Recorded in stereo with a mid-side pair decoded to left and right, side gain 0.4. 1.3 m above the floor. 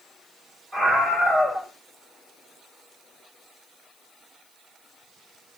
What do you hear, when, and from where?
0.7 s a scream: 30° right, 4.5 m